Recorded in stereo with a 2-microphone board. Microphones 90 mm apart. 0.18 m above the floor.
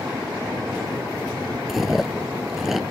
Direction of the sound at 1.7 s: 5° right (ahead or behind).